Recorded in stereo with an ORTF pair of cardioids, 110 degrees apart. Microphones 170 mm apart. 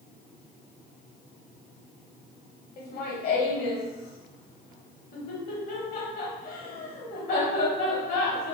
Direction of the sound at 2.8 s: 60° left.